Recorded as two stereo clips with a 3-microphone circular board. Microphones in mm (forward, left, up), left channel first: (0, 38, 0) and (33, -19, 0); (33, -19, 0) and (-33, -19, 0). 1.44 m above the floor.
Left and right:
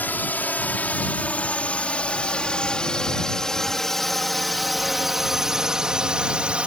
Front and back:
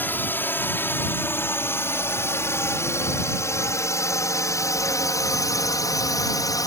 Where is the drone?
60° left; by 6.7 s 10° left.